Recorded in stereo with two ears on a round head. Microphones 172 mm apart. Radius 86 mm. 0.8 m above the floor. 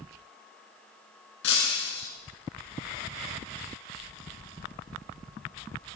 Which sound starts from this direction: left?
Breaking glass, at 1.4 s.